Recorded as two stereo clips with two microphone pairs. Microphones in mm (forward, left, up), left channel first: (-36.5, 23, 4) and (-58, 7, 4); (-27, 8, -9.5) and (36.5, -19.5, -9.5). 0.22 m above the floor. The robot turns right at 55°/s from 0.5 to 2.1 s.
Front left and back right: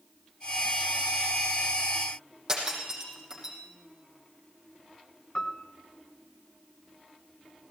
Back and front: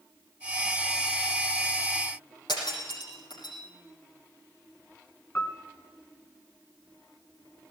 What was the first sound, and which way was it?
Breaking glass, 150° left.